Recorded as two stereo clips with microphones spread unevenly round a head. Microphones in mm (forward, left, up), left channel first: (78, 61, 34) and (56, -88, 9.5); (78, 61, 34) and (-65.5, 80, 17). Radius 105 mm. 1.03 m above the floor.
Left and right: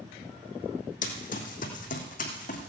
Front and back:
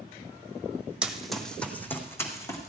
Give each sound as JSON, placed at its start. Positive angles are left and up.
{"t": 1.0, "sound": "running footsteps", "azimuth_deg": 85, "distance_m": 1.9}